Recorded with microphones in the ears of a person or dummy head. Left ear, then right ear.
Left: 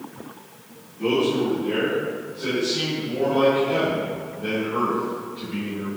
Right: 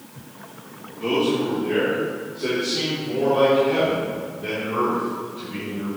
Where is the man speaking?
40° left (ahead or behind), 3 m; by 5.9 s 30° left (ahead or behind), 6 m.